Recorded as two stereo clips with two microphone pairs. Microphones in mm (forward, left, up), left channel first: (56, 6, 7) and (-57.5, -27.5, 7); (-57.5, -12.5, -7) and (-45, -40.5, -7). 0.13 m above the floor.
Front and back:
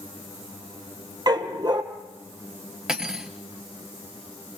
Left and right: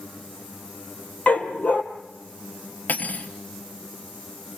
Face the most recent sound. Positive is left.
turn(degrees=115)